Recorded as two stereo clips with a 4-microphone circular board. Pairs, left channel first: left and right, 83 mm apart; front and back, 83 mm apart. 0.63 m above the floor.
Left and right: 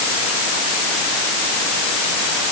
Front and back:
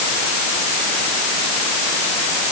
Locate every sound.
Only background noise.